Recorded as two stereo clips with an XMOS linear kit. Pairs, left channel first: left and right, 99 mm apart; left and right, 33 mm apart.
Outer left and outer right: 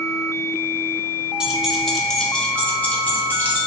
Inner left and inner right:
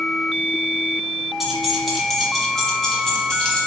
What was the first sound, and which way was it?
Keys jangling, 10° right (ahead or behind).